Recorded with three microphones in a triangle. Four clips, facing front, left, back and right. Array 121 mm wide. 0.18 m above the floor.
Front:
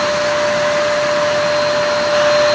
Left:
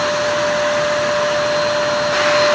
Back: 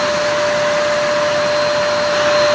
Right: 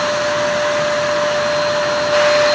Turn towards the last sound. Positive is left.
No sound to turn to.